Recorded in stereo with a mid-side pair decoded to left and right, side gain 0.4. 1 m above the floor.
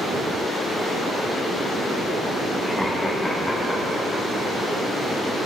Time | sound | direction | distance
2.6 | laughter | 5° left | 1.2 m